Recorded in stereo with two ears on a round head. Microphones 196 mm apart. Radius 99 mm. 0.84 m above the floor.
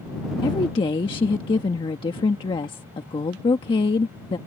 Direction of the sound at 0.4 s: 20° left (ahead or behind).